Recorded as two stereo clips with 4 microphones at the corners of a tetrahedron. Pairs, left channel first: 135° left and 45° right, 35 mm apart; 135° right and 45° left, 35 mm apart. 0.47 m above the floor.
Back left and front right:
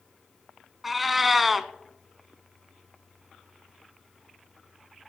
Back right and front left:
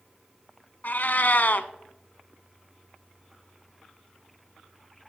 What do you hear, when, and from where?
0.8 s a cat meowing: 130° right, 0.6 m